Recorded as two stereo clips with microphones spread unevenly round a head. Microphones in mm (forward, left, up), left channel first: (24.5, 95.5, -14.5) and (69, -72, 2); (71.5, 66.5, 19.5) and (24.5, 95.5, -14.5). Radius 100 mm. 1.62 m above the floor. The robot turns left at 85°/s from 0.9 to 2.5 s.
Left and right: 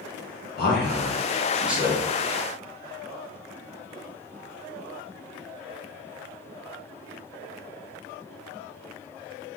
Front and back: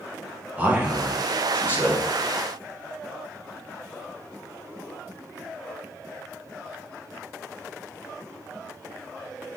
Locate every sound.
0.6 s a man speaking: 75° left, 1.8 m; by 2.1 s 25° right, 1.8 m